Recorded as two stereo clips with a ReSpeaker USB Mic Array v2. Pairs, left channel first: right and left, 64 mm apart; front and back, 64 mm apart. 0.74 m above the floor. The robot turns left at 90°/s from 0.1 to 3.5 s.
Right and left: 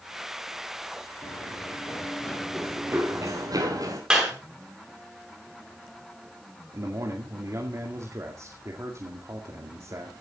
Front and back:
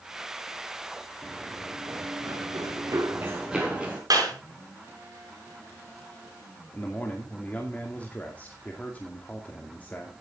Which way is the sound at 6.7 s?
65° left.